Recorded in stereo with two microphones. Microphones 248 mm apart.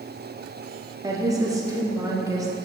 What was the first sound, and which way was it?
A woman speaking, 15° right (ahead or behind).